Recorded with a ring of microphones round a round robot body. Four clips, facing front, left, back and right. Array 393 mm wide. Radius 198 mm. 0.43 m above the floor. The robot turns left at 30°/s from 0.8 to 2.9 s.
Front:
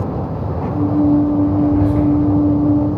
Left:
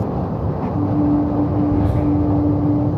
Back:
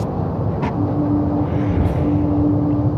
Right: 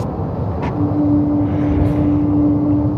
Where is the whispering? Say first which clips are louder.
Right 2 dB, front 6 dB; 120° right, 1.4 m; by 2.1 s 130° right, 1.4 m.